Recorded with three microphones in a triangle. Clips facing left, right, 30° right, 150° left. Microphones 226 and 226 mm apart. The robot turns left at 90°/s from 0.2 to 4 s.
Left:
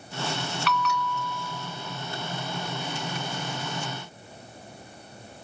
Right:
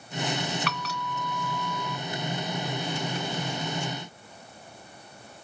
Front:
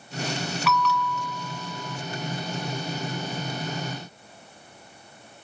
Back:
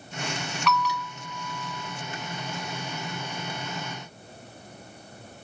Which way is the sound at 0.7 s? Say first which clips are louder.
Left 5 dB, front 2 dB; 115° right.